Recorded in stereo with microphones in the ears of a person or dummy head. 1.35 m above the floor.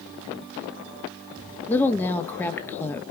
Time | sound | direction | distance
1.7 | a woman speaking | 15° left (ahead or behind) | 1.8 m